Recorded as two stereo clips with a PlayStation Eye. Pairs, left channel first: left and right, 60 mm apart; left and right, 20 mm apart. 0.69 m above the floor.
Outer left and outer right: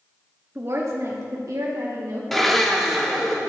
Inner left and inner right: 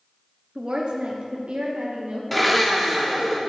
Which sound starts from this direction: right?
A woman speaking, at 0.6 s.